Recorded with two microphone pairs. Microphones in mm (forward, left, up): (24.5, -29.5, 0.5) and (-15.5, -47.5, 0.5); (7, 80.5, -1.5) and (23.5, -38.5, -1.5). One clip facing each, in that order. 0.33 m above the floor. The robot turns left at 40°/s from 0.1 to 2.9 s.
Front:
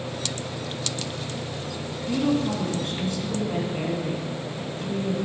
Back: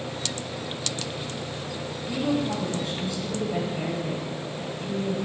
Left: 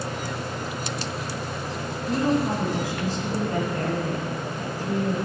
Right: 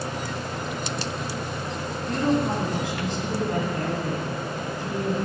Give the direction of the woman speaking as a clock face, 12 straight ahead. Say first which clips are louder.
Front 3 dB, even; 11 o'clock.